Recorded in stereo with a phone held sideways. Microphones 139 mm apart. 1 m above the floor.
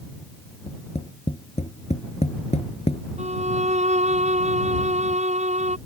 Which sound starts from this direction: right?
A violin, at 3.2 s.